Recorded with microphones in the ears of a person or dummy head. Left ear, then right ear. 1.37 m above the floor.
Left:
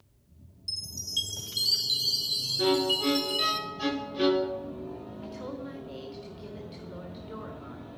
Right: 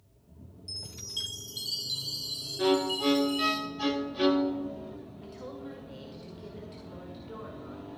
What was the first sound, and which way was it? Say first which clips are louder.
A chime: left 5 dB; 20° left (ahead or behind).